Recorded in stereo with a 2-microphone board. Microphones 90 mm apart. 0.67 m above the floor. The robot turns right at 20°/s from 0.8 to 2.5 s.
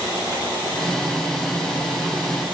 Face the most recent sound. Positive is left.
No sound to turn to.